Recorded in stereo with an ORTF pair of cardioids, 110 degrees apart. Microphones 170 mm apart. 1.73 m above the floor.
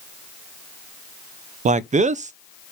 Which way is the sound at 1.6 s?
45° right.